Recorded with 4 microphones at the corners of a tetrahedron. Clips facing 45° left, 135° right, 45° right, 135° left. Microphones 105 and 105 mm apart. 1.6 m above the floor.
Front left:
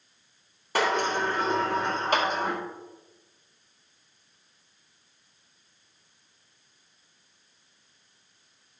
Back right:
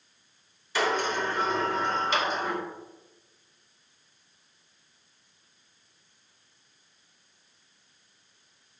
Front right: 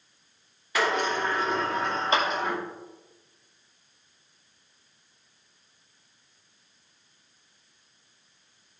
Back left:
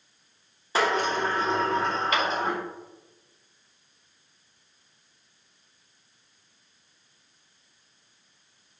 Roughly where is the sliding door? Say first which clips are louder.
Front left 2 dB, back left 1 dB; left.